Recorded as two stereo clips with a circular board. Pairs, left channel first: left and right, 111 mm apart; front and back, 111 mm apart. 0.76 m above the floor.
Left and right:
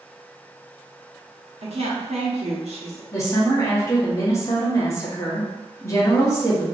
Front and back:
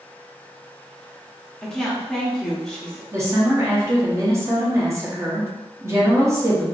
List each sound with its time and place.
1.6 s a woman speaking: 85° right, 1.0 m
3.1 s a woman speaking: 135° left, 0.9 m